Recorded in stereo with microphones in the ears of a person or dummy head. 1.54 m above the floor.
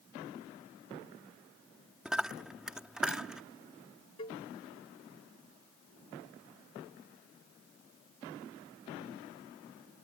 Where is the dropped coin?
5° right (ahead or behind).